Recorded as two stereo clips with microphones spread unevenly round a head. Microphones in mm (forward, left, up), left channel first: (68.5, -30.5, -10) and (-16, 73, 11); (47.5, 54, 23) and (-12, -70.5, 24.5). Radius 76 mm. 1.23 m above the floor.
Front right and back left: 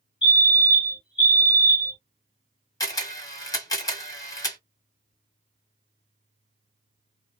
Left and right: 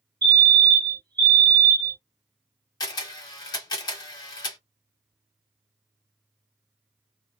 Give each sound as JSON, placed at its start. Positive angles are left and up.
{"t": 0.2, "sound": "a fire alarm", "azimuth_deg": -70, "distance_m": 1.3}
{"t": 2.8, "sound": "a camera shutter", "azimuth_deg": 10, "distance_m": 1.3}